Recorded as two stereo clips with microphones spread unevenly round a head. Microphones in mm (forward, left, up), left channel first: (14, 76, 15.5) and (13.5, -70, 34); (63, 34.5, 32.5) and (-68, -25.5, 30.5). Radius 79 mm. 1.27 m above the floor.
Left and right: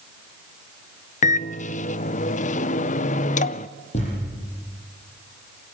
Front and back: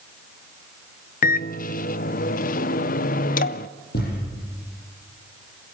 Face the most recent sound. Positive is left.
turn(degrees=45)